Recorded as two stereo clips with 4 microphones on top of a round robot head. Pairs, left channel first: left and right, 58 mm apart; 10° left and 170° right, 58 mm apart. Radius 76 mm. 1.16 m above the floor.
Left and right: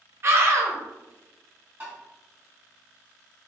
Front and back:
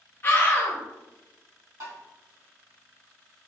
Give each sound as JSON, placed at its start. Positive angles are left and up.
{"t": 0.2, "sound": "a scream", "azimuth_deg": -45, "distance_m": 0.7}
{"t": 1.8, "sound": "tapping", "azimuth_deg": -150, "distance_m": 1.4}